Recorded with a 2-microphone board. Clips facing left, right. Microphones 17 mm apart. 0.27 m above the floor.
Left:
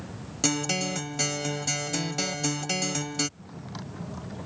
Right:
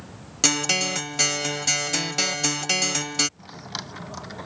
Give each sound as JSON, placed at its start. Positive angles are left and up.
{"t": 0.4, "sound": "a guitar", "side_deg": -40}
{"t": 3.4, "sound": "a drawer", "side_deg": -75}